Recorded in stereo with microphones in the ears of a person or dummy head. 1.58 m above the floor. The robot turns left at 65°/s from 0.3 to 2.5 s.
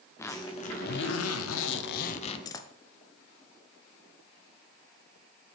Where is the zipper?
165° left, 0.6 m; by 2.7 s 20° left, 0.6 m.